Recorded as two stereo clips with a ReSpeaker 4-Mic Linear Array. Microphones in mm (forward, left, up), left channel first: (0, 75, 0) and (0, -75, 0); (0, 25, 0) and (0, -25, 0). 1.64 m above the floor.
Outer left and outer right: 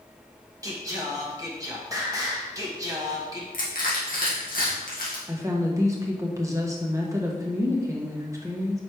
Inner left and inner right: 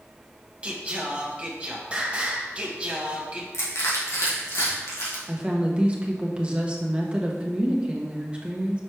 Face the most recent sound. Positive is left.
turn(degrees=-20)  # may be behind; listen again after turning